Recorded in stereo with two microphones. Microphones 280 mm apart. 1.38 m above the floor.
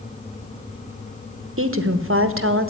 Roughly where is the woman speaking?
Right.